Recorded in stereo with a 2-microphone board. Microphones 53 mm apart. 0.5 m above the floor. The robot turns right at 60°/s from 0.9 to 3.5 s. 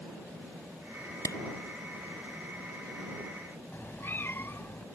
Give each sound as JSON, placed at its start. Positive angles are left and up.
{"t": 1.2, "sound": "a clap", "side_deg": 75}
{"t": 3.7, "sound": "a cat meowing", "side_deg": 40}